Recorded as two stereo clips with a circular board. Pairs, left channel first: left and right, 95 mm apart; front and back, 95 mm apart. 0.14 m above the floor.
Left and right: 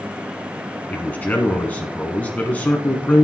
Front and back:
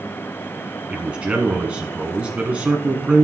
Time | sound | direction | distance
0.9 | a man speaking | 125° left | 1.0 m